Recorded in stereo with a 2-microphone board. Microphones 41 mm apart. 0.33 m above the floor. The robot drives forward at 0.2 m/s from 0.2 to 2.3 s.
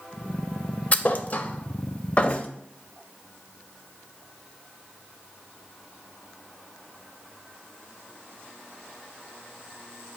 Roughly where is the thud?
Left.